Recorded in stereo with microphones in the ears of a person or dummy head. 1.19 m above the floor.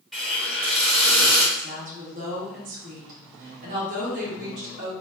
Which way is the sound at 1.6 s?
40° right (ahead or behind).